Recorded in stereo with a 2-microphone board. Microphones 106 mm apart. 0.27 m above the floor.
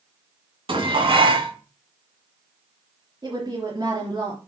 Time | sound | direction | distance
0.7 | dishes clattering | 55° right (ahead or behind) | 1.8 m
3.2 | a woman speaking | 45° right (ahead or behind) | 3 m